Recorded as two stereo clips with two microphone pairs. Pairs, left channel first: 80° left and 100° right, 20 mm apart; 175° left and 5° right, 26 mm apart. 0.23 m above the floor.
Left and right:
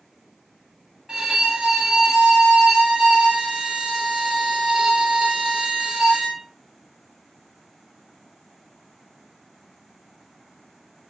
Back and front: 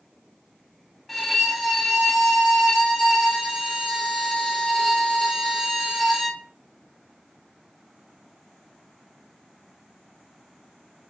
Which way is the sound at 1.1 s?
100° right.